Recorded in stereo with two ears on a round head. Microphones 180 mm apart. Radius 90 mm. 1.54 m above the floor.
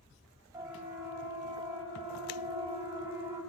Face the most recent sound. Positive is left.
turn(degrees=-25)  # may be behind; listen again after turning